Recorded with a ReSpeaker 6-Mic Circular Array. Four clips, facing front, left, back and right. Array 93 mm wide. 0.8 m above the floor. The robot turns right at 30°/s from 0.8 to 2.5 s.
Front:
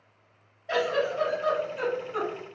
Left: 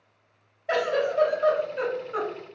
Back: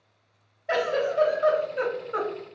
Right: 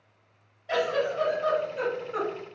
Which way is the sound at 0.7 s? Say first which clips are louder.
Left 2 dB, back 1 dB; 120° left.